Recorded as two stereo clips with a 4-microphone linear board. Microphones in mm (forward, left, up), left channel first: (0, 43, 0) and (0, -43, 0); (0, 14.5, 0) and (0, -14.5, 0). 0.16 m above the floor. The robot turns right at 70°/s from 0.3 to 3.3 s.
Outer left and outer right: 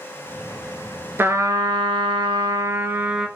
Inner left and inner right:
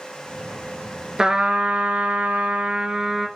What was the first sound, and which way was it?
A trumpet, 150° right.